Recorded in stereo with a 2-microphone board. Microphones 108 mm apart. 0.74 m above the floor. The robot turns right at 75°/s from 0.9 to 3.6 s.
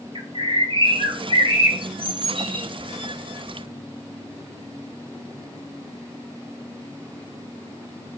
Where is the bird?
110° right, 1.4 m; by 2.6 s 20° left, 1.4 m.